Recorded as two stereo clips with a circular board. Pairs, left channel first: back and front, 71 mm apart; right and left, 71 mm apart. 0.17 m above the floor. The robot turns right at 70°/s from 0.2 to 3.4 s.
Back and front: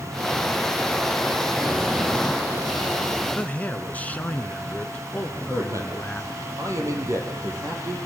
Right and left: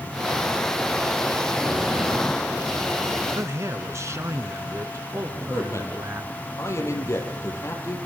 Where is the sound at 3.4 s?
115° left, 1.8 m; by 6.3 s 120° left, 1.8 m.